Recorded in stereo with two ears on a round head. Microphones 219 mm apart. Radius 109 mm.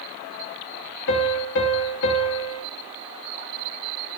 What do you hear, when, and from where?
1.1 s a piano: 50° left (ahead or behind), 2.5 m